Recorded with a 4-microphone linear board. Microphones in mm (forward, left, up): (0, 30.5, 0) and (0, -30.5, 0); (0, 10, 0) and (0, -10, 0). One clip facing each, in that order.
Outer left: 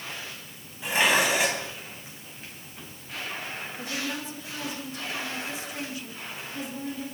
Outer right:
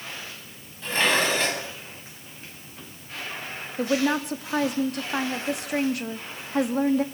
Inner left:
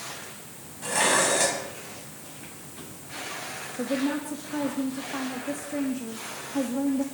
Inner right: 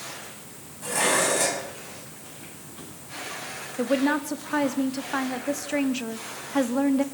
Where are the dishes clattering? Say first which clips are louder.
Even, even; 10° left (ahead or behind), 5 m.